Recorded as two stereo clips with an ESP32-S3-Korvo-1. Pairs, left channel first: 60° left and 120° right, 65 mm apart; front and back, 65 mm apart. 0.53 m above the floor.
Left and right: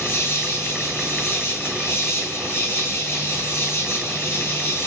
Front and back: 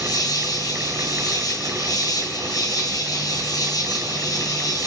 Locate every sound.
0.0 s an insect: 10° left, 4 m